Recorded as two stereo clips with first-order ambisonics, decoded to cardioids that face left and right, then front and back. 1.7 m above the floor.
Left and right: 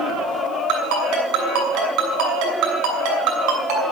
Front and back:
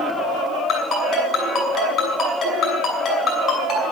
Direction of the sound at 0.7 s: 75° right.